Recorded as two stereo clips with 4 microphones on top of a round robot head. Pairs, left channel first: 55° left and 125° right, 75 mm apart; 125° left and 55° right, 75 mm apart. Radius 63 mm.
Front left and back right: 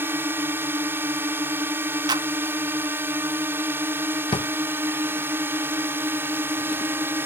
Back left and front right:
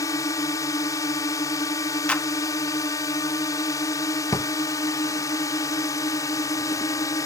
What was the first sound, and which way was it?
A drone, 170° left.